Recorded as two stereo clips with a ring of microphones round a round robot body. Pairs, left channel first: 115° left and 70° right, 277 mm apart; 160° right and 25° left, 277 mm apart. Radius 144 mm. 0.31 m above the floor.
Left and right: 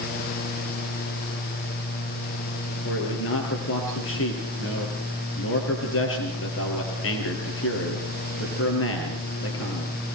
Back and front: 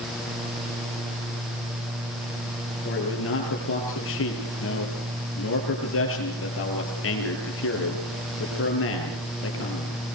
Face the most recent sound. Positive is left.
turn(degrees=155)